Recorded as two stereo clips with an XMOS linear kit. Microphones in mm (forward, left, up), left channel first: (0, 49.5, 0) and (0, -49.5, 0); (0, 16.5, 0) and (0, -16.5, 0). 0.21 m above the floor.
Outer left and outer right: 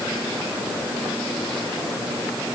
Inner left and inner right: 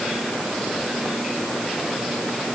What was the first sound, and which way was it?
Only background noise.